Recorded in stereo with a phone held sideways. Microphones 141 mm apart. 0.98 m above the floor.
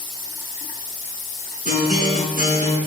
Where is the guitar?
65° right (ahead or behind), 5.5 m.